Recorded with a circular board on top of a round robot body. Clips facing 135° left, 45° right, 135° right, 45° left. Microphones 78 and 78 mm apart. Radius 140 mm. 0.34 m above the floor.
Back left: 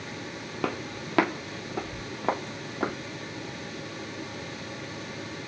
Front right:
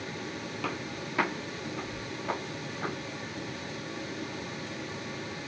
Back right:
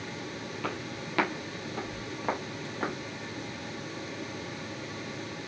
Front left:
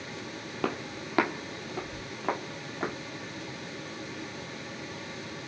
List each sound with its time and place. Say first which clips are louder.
0.6 s footsteps: back left 5 dB, front left 5 dB; 85° left, 0.8 m; by 3.0 s 140° left, 2 m